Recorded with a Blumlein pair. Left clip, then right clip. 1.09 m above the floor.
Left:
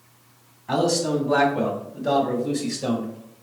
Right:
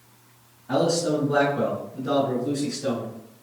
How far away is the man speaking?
About 3 m.